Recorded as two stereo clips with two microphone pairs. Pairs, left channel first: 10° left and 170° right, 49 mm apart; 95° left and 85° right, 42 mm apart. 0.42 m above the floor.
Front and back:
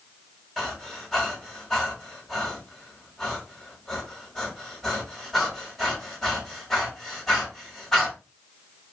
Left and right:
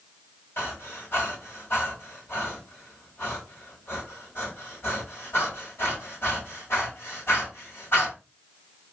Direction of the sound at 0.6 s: 95° left.